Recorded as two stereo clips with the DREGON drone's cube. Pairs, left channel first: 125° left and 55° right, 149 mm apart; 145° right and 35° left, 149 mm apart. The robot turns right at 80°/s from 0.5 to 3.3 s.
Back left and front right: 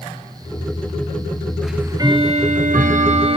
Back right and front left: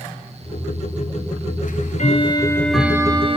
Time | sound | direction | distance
1.6 | ticking | 145° right | 1.4 m